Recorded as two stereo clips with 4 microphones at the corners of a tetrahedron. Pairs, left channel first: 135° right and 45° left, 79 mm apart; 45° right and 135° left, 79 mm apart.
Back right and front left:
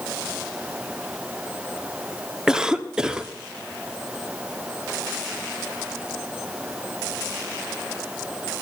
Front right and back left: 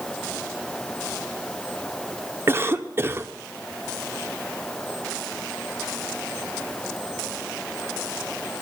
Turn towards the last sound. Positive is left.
turn(degrees=120)